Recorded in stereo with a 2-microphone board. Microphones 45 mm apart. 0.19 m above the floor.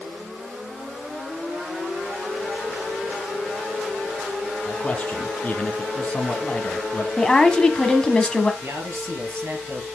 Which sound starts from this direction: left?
A man speaking, at 4.7 s.